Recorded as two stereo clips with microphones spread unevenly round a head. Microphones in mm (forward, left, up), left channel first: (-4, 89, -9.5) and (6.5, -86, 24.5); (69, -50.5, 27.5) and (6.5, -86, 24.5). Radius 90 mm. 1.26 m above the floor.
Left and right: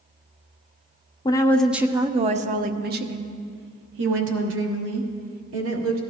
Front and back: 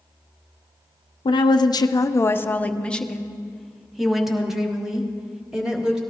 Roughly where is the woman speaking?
Ahead left.